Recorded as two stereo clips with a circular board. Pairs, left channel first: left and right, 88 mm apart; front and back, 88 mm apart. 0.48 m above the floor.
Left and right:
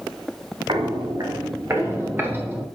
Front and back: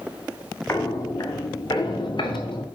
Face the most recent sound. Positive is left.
turn(degrees=-15)